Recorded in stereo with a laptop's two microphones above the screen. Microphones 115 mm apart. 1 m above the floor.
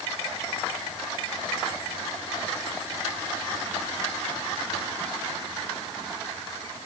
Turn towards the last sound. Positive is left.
No sound to turn to.